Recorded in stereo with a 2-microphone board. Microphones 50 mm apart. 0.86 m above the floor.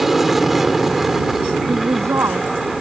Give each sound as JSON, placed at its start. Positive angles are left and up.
{"t": 0.0, "sound": "an aircraft", "side_deg": -5}
{"t": 1.7, "sound": "a woman speaking", "side_deg": -85}